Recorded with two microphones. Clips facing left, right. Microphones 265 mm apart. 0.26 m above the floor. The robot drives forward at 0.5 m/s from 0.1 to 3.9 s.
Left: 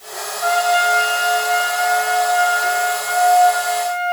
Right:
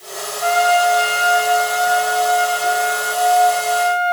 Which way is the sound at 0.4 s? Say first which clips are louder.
Right 2 dB; 20° left (ahead or behind).